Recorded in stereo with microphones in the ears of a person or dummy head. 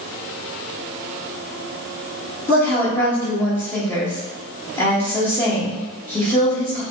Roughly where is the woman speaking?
Centre.